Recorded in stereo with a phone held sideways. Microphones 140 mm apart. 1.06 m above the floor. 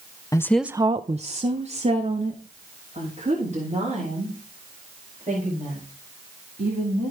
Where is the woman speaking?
25° left (ahead or behind), 0.6 m; by 7.1 s 50° right (ahead or behind), 7 m.